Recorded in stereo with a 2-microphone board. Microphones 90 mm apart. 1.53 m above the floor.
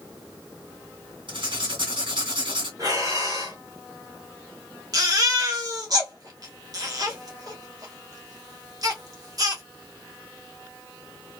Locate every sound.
1.3 s writing: 70° right (ahead or behind), 2 m
2.8 s breathing: 45° right (ahead or behind), 1.7 m
4.9 s a baby crying: 45° right (ahead or behind), 1.0 m